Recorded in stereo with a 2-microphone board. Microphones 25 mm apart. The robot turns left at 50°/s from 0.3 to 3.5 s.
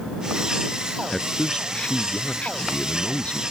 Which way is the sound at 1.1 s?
165° left.